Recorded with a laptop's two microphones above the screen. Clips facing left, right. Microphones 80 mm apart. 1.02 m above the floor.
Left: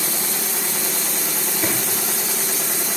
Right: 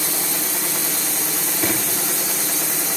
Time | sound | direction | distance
1.6 | a drawer | centre (ahead or behind) | 8.5 m